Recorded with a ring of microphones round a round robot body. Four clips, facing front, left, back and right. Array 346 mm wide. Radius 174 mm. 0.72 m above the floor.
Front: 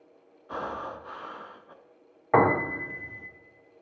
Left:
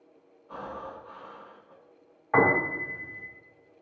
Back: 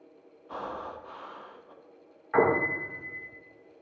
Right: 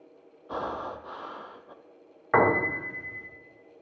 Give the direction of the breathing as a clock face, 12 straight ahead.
2 o'clock.